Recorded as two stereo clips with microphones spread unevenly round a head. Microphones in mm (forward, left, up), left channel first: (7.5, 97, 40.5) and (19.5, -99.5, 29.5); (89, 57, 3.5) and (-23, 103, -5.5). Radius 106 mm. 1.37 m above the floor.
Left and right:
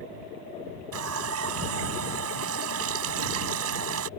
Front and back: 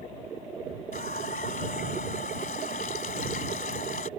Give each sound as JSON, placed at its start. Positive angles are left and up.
{"t": 0.9, "sound": "a running tap", "azimuth_deg": -75}